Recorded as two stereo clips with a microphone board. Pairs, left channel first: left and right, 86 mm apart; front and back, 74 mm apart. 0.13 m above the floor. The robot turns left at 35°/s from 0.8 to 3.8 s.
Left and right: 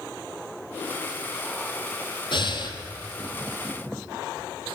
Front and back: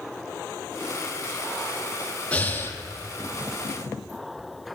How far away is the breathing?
About 1.1 m.